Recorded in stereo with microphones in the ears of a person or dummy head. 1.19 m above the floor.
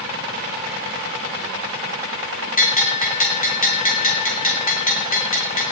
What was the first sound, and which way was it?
A bell, 45° left (ahead or behind).